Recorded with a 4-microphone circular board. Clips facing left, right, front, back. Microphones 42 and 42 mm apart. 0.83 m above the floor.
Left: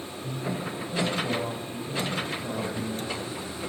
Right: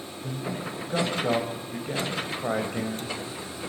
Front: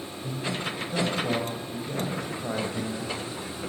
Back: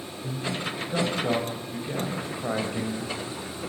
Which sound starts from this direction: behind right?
A man speaking, at 0.2 s.